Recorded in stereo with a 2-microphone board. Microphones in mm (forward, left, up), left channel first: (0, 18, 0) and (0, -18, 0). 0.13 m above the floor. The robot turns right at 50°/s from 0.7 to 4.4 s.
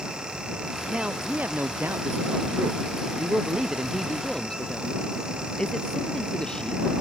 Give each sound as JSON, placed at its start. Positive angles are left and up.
{"t": 0.9, "sound": "a man speaking", "azimuth_deg": -155}